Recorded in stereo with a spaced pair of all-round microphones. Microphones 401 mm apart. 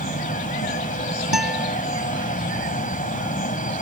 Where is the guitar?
80° right.